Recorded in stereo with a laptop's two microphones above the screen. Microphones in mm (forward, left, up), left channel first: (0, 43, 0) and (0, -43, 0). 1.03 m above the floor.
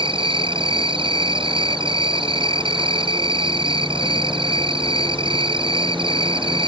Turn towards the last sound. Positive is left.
turn(degrees=-80)